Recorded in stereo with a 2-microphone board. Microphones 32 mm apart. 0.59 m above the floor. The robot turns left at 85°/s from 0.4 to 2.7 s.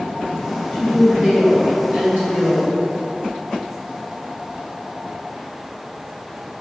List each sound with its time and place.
0.7 s a woman speaking: 20° left, 1.8 m; by 2.7 s 150° right, 1.8 m